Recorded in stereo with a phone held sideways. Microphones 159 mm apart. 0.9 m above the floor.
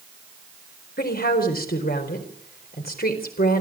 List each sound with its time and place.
1.0 s a woman speaking: 80° left, 4 m